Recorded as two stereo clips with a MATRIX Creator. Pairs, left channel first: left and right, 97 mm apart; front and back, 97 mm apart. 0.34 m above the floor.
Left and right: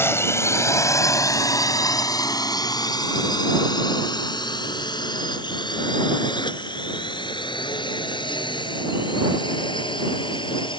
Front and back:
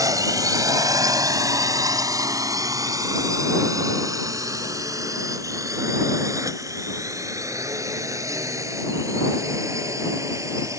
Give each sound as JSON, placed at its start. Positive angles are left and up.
{"t": 0.0, "sound": "a drone", "azimuth_deg": 145}